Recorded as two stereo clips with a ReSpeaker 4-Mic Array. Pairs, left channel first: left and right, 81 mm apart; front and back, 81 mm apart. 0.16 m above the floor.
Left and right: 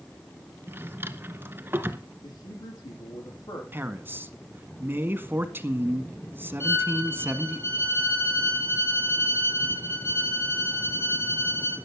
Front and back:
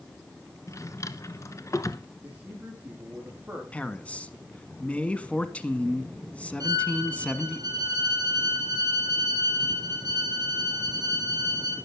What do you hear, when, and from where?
0.7 s a drawer: 35° right, 1.1 m
2.2 s a man speaking: 110° left, 8.5 m
3.7 s a man speaking: 60° right, 1.4 m
6.6 s a violin: 150° left, 3.5 m